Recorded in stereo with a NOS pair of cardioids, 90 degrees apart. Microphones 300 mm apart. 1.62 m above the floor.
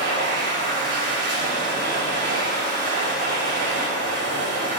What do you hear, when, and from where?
0.0 s a machine running: 50° right, 3.5 m